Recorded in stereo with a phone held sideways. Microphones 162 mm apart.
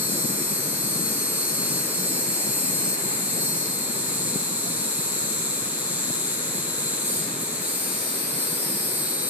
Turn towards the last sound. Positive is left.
turn(degrees=-10)  # may be behind; listen again after turning